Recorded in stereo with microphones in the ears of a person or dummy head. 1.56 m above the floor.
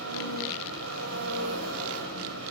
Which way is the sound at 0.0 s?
80° right.